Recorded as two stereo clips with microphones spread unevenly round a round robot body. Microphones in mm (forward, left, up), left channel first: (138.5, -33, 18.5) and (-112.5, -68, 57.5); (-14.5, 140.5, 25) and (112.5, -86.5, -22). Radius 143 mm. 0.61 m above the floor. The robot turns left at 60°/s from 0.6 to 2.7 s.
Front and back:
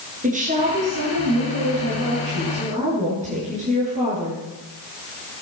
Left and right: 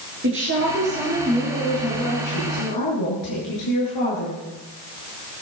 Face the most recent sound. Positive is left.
turn(degrees=120)